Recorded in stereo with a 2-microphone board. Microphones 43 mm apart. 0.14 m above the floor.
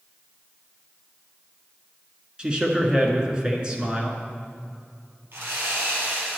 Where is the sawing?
65° right (ahead or behind), 2.5 m.